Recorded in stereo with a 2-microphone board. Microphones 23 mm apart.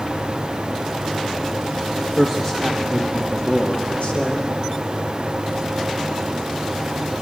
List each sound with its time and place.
2.2 s a man speaking: 10° left (ahead or behind), 1.9 m; by 4.5 s 75° left (ahead or behind), 3 m